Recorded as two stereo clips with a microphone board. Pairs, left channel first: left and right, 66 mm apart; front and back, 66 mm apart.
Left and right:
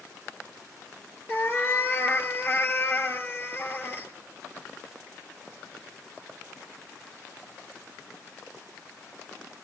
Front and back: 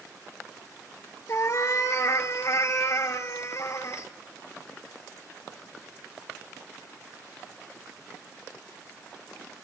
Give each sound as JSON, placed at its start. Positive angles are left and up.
{"t": 1.3, "sound": "a cat meowing", "azimuth_deg": 40, "distance_m": 1.5}